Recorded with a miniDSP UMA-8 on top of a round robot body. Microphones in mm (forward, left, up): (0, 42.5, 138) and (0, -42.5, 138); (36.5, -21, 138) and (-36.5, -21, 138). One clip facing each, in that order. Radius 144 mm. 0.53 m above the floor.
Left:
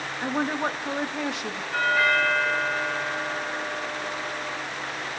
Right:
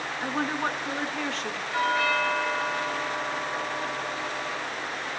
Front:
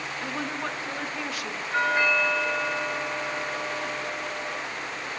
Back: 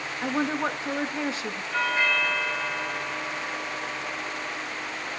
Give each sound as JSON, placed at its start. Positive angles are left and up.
{"t": 0.2, "sound": "a woman speaking", "azimuth_deg": 155, "distance_m": 1.3}
{"t": 1.7, "sound": "a doorbell", "azimuth_deg": 55, "distance_m": 9.5}